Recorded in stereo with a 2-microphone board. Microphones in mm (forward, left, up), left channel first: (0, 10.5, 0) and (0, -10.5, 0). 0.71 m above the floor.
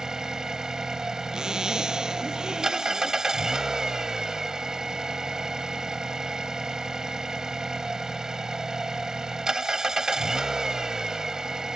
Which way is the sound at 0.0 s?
20° right (ahead or behind).